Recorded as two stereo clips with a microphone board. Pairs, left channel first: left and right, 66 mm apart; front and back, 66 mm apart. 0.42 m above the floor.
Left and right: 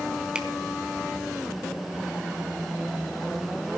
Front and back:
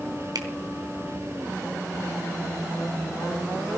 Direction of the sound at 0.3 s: 165° right.